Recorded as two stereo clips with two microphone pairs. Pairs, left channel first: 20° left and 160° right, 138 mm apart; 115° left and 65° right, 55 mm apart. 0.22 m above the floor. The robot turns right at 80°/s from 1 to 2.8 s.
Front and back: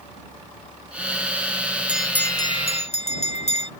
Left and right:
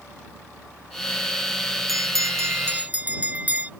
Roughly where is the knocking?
I don't hear knocking.